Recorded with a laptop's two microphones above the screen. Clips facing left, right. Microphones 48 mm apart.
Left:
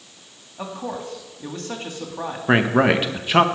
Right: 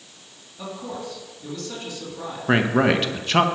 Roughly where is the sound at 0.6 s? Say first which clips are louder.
Left 3 dB; left.